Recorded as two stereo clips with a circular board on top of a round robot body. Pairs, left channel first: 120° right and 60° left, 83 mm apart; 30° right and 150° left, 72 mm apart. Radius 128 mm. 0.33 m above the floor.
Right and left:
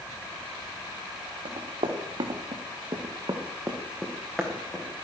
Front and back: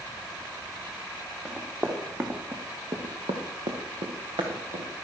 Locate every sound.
1.4 s running footsteps: 75° left, 3 m; by 4.8 s 155° left, 3 m